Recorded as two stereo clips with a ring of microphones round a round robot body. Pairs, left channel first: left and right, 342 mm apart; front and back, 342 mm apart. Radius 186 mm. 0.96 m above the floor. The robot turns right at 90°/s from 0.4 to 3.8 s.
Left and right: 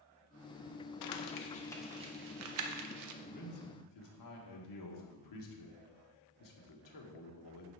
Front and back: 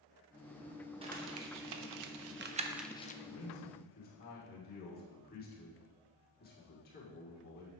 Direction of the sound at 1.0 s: 105° left.